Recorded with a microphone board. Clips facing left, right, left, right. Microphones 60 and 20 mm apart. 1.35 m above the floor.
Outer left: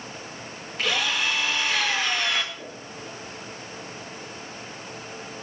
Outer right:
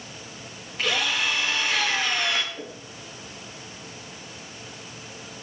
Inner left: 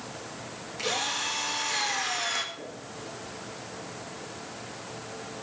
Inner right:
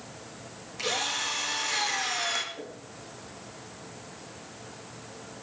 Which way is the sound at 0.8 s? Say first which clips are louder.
Even, even; centre (ahead or behind).